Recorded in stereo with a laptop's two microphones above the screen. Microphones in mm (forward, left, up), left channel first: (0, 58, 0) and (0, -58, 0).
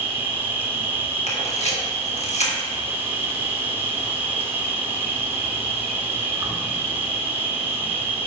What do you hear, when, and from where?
0.0 s an insect: 20° right (ahead or behind), 0.9 m
1.3 s a camera shutter: 70° left (ahead or behind), 1.5 m